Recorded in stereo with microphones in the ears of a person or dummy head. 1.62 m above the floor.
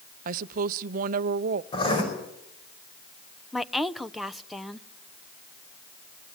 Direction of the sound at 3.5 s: Centre (ahead or behind).